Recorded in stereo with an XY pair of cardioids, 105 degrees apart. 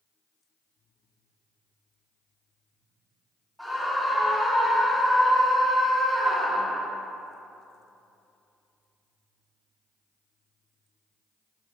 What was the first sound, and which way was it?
A scream, 5° right.